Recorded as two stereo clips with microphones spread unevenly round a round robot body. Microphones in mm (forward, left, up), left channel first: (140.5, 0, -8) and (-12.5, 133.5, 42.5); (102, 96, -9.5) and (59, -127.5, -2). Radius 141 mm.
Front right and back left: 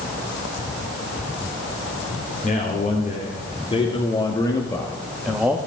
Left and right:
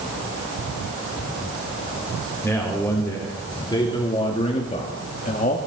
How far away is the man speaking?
About 3 m.